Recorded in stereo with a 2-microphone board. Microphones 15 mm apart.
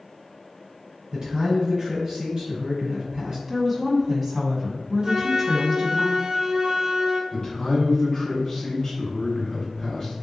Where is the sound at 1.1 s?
35° right (ahead or behind), 1.8 m.